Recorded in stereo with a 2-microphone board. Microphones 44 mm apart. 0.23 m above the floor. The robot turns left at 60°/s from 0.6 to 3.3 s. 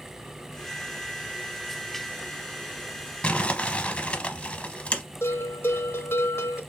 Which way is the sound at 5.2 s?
80° left.